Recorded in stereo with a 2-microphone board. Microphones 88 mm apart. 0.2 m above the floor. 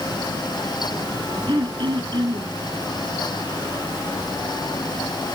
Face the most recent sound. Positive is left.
turn(degrees=-60)  # may be behind; listen again after turning